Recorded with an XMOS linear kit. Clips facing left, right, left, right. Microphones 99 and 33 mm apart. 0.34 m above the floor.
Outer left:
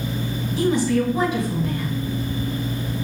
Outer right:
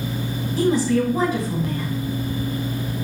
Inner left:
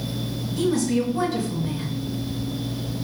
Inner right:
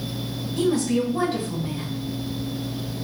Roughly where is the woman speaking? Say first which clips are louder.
Outer right 1 dB, even; right.